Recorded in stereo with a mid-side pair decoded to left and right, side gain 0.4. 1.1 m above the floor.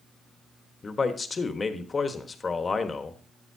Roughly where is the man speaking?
Ahead left.